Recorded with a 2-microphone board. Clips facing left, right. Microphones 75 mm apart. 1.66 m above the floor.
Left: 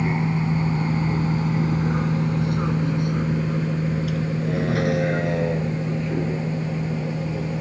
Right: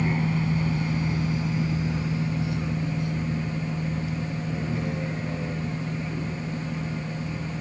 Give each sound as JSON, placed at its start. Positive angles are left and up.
{"t": 0.0, "sound": "a vehicle", "side_deg": 20}